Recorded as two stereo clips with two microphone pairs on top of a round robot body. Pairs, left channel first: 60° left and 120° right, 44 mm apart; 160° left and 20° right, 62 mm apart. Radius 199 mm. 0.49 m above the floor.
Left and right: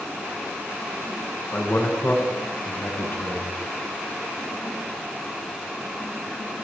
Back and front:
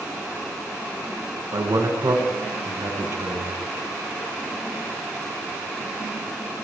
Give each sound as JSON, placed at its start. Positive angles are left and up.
{"t": 1.5, "sound": "a man speaking", "azimuth_deg": 10, "distance_m": 6.0}